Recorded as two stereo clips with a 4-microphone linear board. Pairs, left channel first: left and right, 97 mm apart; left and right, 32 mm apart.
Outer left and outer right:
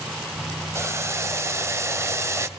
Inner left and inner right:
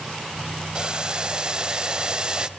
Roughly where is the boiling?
Right.